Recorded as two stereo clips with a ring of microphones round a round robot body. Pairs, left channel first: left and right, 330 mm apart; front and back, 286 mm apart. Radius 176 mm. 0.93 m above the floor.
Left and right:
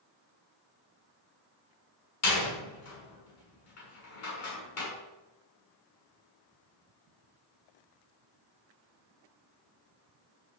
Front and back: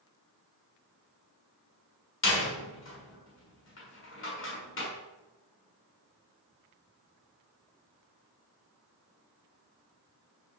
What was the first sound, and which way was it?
A door slam, 45° left.